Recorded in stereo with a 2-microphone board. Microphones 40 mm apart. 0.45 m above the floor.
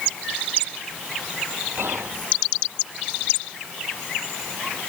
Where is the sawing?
I don't hear sawing.